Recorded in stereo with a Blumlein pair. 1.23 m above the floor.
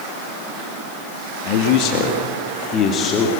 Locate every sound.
1.4 s a man speaking: 45° left, 2.5 m; by 3.3 s 25° left, 2.5 m